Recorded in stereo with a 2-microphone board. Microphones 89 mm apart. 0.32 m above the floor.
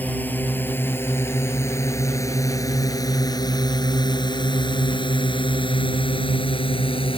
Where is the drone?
20° left (ahead or behind); by 7.2 s 75° left (ahead or behind).